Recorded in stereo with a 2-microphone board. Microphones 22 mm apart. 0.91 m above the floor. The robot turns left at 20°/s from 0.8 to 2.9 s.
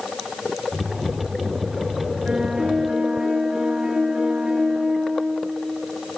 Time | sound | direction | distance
2.2 | a piano | 30° right (ahead or behind) | 9 m